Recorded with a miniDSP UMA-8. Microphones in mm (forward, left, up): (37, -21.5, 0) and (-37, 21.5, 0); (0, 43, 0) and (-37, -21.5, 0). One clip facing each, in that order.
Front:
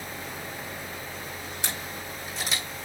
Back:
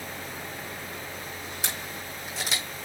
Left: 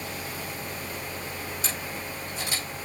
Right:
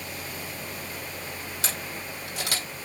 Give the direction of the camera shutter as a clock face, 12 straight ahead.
4 o'clock.